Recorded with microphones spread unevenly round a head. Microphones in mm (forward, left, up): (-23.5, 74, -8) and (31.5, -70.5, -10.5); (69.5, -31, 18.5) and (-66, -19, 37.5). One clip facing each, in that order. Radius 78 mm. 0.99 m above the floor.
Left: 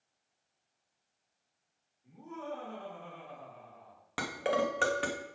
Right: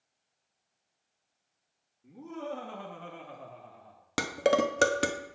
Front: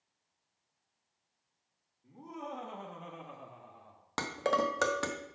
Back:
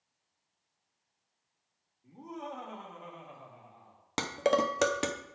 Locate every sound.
2.0 s laughter: 100° right, 1.5 m; by 4.0 s 15° right, 2 m
4.2 s dishes clattering: 115° right, 0.6 m